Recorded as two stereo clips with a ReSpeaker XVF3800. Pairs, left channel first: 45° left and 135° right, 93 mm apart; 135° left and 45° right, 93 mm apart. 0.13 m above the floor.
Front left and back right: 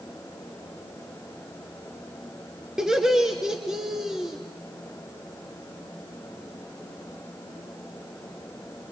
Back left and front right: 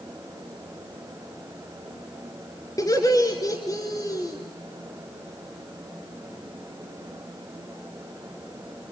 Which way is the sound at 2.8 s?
145° left.